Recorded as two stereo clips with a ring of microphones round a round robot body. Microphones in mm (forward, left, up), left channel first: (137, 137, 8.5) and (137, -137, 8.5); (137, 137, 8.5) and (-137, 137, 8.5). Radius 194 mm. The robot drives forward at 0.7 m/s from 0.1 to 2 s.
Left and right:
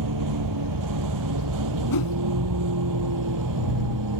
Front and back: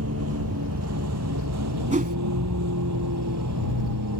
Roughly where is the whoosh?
Left.